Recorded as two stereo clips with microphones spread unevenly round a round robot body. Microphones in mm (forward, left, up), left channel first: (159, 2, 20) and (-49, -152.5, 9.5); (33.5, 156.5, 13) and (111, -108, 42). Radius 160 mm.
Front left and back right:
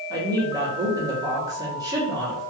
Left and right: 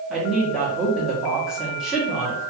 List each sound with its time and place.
0.1 s a woman speaking: 175° right, 1.2 m